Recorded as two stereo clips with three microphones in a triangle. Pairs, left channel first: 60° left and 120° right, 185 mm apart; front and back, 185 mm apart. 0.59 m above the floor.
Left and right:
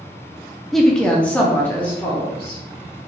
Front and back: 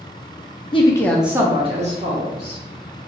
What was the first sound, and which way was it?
A woman speaking, 30° right.